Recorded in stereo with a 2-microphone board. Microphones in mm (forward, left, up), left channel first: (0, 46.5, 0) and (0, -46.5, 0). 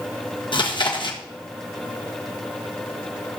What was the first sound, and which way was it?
Chewing, 60° left (ahead or behind).